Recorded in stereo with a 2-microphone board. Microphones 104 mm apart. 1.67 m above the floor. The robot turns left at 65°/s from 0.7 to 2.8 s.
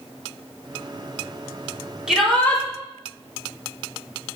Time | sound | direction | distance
2.1 | a shout | 170° right | 4 m